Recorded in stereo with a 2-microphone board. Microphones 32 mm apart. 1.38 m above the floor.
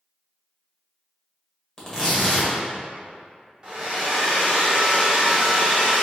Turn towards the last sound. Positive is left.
turn(degrees=-20)  # may be behind; listen again after turning